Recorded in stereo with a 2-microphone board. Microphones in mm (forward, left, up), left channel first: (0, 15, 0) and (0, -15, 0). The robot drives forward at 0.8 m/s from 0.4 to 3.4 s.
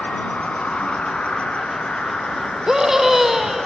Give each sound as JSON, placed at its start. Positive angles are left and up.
{"t": 0.0, "sound": "an insect", "side_deg": 45, "distance_m": 2.5}
{"t": 2.7, "sound": "a scream", "side_deg": -20, "distance_m": 1.6}